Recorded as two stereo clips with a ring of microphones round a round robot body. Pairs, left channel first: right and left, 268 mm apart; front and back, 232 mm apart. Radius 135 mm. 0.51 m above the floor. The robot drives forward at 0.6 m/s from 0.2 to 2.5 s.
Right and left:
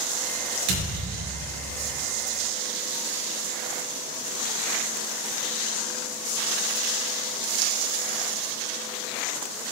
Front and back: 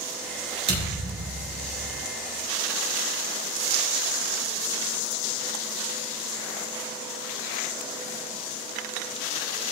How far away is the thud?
About 4.5 m.